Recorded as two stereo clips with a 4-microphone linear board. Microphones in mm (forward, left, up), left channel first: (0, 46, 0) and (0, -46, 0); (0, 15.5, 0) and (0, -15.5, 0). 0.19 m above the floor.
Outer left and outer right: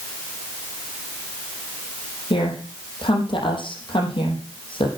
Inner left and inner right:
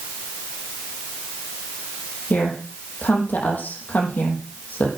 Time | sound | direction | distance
2.3 | a woman speaking | 65° left (ahead or behind) | 6 m